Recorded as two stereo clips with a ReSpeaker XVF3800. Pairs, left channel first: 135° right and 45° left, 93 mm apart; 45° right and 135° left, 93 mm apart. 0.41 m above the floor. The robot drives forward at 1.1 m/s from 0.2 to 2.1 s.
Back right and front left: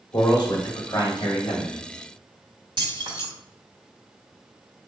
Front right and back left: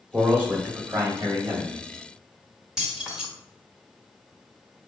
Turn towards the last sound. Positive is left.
turn(degrees=50)